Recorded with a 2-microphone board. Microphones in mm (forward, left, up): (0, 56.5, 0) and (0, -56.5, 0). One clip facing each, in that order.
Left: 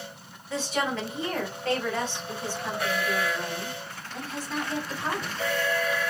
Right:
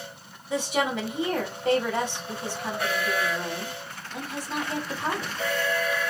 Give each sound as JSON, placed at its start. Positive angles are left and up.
{"t": 0.5, "sound": "a woman speaking", "side_deg": -15, "distance_m": 1.9}